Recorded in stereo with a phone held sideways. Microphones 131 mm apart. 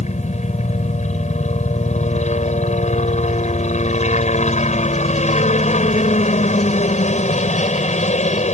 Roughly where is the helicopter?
Left.